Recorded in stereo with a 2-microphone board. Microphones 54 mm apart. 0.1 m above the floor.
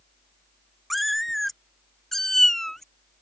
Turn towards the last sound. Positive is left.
turn(degrees=5)  # may be behind; listen again after turning